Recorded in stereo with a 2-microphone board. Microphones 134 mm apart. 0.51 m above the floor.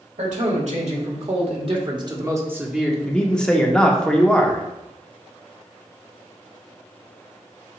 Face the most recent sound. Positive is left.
turn(degrees=5)  # may be behind; listen again after turning